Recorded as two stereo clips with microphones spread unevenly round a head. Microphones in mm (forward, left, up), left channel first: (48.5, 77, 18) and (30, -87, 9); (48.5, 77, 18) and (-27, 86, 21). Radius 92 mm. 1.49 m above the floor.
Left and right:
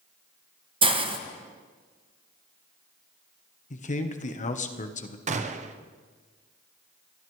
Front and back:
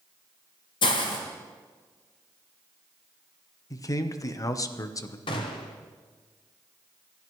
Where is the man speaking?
40° left, 1.1 m.